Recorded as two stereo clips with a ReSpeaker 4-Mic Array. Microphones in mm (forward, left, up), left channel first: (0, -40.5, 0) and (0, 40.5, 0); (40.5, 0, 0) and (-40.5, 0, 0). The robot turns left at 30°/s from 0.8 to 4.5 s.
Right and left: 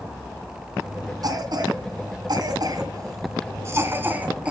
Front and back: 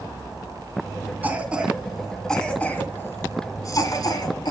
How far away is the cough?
About 2.5 m.